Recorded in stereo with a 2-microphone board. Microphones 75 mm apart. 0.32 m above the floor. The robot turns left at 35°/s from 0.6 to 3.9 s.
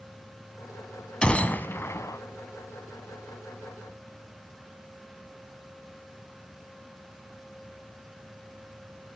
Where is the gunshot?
170° left, 1.0 m; by 2.2 s 135° left, 1.0 m.